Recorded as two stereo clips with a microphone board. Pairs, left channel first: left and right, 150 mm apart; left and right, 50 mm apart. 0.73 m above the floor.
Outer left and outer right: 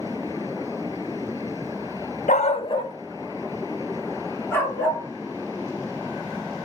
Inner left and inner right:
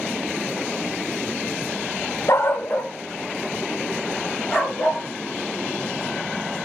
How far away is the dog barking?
About 0.6 m.